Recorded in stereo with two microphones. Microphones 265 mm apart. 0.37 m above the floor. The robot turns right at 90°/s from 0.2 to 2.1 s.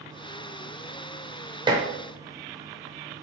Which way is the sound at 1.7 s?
15° right (ahead or behind).